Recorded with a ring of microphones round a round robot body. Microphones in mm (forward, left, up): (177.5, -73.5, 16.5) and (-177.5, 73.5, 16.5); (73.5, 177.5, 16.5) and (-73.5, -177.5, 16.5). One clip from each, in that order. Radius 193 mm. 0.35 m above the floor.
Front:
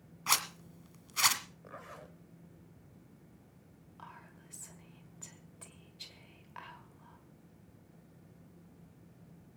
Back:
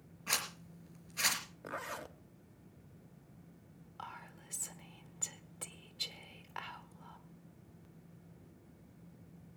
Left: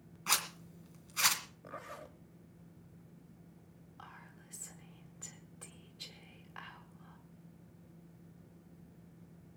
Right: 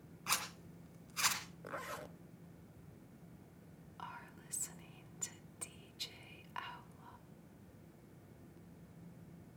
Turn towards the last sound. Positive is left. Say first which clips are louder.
# back 4 dB, right 4 dB
turn(degrees=-135)